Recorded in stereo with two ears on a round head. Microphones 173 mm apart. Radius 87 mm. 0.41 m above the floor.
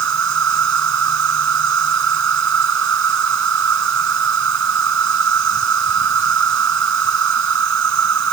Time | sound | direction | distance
0.0 | an insect | 75° right (ahead or behind) | ?